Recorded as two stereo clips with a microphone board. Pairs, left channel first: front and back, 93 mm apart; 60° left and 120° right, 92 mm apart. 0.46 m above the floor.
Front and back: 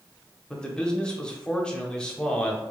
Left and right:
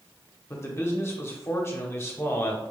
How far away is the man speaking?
About 0.7 m.